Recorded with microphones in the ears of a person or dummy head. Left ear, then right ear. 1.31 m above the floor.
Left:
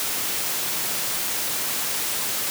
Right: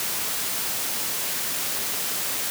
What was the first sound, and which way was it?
Only background noise.